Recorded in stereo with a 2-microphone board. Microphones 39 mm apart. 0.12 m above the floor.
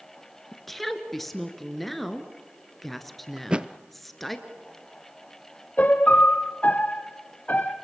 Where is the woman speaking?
5° left (ahead or behind), 2.0 m.